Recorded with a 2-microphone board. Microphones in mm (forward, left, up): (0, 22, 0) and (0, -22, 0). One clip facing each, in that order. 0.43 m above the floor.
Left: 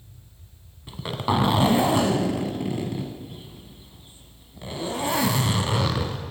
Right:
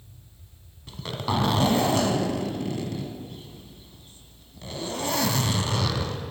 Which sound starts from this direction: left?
A zipper, at 0.9 s.